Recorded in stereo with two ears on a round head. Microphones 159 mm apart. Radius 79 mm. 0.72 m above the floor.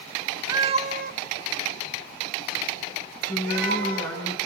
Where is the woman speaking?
15° left (ahead or behind), 5.5 m.